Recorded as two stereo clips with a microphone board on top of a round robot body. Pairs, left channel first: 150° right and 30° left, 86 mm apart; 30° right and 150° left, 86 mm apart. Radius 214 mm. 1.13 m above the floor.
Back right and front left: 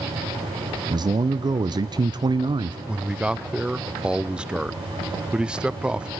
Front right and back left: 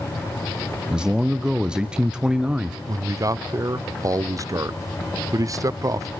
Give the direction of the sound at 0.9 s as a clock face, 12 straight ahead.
10 o'clock.